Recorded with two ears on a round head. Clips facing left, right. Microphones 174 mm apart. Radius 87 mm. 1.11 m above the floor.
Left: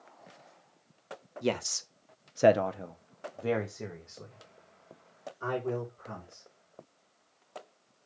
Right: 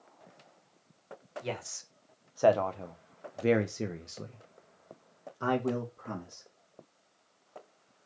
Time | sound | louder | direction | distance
1.4 | a man speaking | left 9 dB | 60° left (ahead or behind) | 1.0 m